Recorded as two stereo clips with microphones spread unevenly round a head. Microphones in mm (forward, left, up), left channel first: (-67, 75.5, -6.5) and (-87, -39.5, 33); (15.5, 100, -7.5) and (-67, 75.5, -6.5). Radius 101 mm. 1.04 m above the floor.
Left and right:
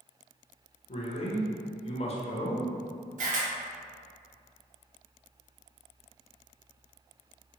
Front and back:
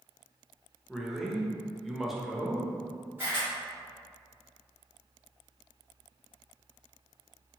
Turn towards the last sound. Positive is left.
turn(degrees=-95)